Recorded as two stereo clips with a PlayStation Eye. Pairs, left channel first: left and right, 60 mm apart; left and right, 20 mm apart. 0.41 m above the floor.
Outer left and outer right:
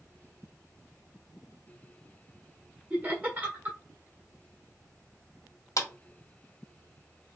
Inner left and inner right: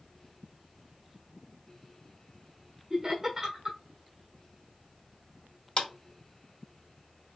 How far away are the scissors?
No scissors in this recording.